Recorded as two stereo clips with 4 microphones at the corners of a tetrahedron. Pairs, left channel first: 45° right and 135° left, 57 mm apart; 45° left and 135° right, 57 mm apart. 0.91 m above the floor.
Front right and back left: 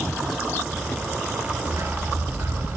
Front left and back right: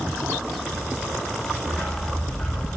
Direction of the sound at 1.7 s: 105° left.